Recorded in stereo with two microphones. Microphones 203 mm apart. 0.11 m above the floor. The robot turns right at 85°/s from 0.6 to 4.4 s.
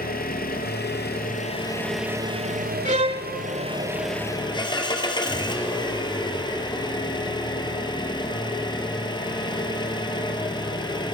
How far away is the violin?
About 0.6 m.